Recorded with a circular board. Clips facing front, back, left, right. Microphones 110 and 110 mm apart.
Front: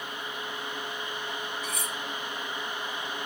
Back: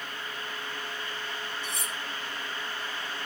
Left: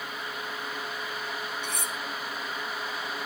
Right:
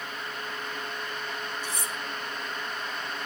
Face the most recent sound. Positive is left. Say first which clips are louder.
# front 2 dB, even
turn(degrees=115)